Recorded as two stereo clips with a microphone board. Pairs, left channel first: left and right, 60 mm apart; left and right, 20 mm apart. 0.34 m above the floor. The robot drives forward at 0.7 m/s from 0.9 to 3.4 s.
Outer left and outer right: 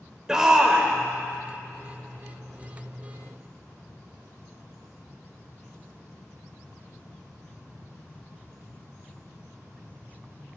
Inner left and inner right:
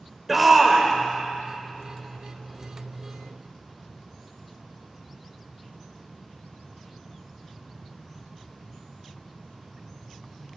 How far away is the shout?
About 0.8 m.